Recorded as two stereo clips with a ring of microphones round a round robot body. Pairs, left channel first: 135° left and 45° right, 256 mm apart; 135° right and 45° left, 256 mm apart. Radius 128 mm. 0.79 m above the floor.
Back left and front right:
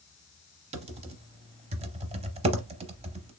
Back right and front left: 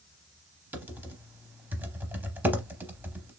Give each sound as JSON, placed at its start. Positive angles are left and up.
{"t": 0.7, "sound": "typing on a keyboard", "azimuth_deg": -30, "distance_m": 0.6}